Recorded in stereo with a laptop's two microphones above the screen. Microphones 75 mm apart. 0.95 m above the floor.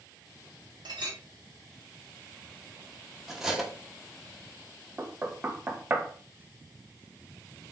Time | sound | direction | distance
0.8 | a clink | 80° right | 1.5 m
3.3 | cutlery clinking | 5° right (ahead or behind) | 1.0 m
5.0 | knocking | 25° right (ahead or behind) | 0.6 m